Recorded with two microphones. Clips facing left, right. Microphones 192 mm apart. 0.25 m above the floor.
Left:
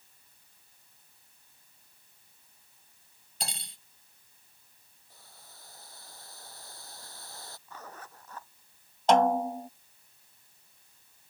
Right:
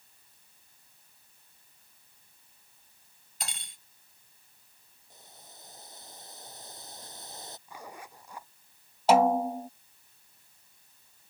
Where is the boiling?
20° right (ahead or behind).